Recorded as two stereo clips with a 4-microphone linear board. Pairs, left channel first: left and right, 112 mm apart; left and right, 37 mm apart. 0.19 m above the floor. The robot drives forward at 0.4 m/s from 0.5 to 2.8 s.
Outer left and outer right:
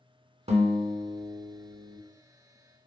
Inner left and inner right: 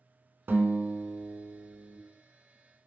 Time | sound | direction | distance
0.5 | a guitar | 60° right (ahead or behind) | 0.5 m